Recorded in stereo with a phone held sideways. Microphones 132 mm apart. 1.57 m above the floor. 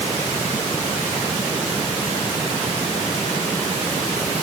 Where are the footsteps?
I don't hear footsteps.